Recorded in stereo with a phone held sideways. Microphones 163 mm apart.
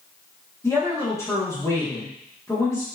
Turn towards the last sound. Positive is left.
turn(degrees=20)  # may be behind; listen again after turning